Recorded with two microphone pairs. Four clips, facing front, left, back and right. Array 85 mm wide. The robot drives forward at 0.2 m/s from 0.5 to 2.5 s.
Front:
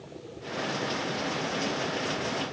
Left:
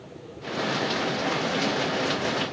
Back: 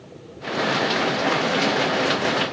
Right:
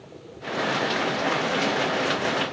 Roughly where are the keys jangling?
I don't hear keys jangling.